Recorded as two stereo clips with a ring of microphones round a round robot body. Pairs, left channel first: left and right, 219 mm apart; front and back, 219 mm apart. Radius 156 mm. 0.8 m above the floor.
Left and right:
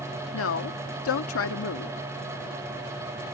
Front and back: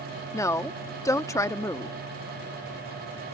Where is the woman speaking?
75° left.